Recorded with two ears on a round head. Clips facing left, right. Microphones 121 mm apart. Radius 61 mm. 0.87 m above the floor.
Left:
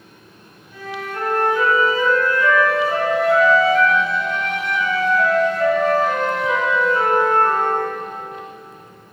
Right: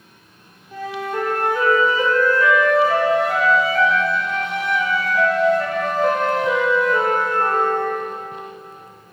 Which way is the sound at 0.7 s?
40° right (ahead or behind).